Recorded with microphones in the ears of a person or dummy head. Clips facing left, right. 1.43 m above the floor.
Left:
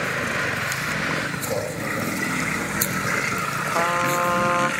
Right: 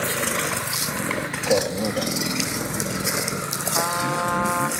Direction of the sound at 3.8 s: 55° left (ahead or behind).